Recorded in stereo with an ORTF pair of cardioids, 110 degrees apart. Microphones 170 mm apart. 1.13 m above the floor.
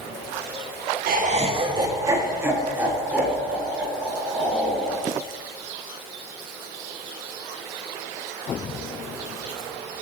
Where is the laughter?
65° right, 0.8 m; by 5.0 s 5° right, 6 m.